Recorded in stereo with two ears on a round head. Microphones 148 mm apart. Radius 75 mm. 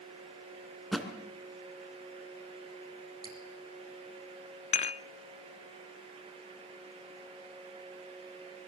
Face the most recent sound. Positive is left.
turn(degrees=40)  # may be behind; listen again after turning